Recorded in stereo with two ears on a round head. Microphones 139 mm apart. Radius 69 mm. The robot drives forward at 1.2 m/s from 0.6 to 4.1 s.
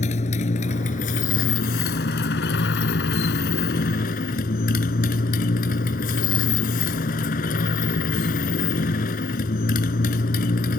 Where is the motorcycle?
50° left (ahead or behind); by 10.8 s 60° left (ahead or behind).